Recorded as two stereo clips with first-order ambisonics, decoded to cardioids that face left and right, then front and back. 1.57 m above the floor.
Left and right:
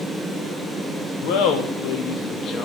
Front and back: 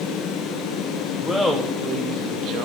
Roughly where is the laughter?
Left.